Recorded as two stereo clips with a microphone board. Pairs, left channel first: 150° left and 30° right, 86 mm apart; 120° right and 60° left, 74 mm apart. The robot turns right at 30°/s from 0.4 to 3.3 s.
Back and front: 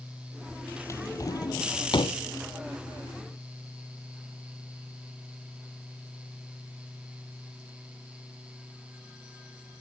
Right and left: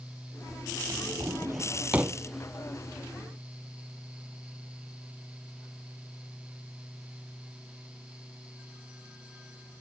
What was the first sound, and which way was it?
A drawer, 95° left.